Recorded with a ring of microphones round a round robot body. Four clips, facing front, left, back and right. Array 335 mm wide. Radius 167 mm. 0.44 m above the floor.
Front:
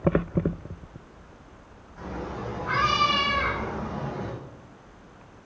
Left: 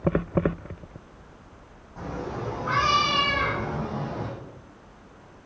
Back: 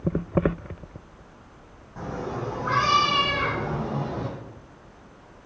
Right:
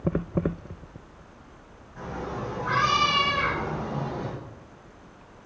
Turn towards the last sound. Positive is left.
turn(degrees=175)